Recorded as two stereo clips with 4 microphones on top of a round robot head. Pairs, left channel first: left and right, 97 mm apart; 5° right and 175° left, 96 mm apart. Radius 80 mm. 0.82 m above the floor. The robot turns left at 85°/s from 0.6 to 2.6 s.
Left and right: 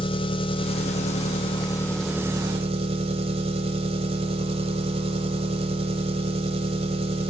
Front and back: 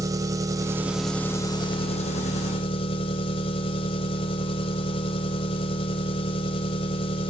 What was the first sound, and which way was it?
An engine running, 120° left.